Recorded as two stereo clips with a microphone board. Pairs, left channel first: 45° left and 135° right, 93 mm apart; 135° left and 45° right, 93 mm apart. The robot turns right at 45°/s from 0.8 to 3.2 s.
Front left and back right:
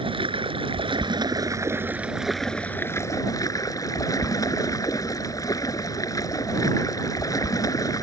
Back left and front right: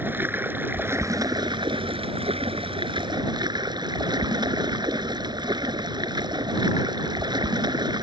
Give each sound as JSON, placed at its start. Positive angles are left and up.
{"t": 0.0, "sound": "running water", "azimuth_deg": -115}